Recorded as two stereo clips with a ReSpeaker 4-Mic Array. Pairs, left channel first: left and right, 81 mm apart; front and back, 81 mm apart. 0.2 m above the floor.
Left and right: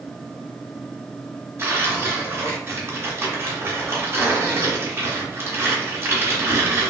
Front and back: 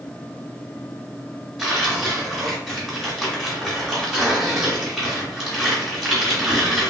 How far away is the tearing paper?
About 1.7 m.